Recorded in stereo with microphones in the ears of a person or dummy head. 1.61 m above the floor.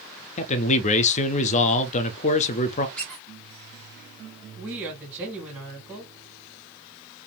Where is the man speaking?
40° left (ahead or behind), 0.5 m.